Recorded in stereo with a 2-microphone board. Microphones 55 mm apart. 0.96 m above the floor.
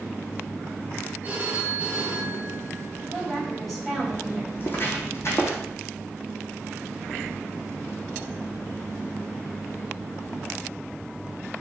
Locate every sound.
1.2 s a phone ringing: 30° right (ahead or behind), 5 m
3.1 s a woman speaking: centre (ahead or behind), 5 m
4.5 s footsteps: 35° left (ahead or behind), 3.5 m; by 5.6 s 60° left (ahead or behind), 2.5 m